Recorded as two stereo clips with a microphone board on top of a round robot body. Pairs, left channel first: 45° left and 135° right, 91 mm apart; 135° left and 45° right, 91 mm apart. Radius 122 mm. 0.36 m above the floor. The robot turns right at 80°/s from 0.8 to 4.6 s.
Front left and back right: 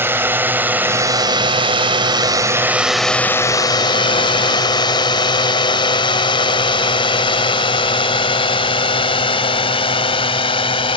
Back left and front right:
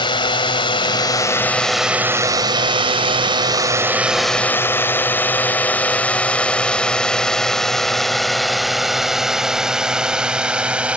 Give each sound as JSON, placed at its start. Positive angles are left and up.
{"t": 0.0, "sound": "a drone", "azimuth_deg": 160}